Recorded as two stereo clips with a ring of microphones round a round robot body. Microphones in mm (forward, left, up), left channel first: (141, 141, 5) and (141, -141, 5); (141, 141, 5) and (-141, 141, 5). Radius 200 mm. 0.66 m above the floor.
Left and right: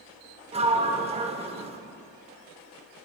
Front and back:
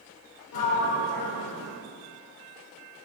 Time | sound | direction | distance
0.5 | a sliding door | 20° right | 0.7 m